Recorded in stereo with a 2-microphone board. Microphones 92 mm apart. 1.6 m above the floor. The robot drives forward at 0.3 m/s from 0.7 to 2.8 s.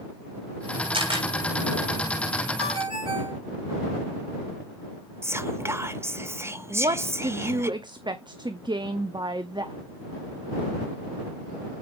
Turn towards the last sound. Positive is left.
turn(degrees=-55)  # may be behind; listen again after turning